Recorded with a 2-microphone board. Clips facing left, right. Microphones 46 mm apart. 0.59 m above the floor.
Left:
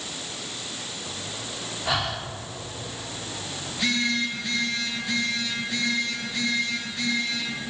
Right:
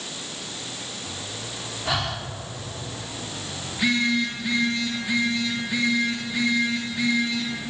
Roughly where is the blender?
I don't hear a blender.